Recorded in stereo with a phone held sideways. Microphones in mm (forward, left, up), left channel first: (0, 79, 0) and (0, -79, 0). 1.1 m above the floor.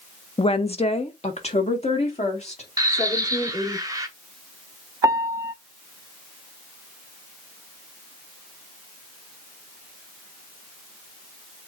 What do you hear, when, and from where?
0.4 s a woman speaking: 35° left (ahead or behind), 0.6 m; by 3.8 s 45° left (ahead or behind), 3.5 m
2.8 s a bird: 25° right (ahead or behind), 0.8 m
5.0 s a piano: 20° right (ahead or behind), 0.6 m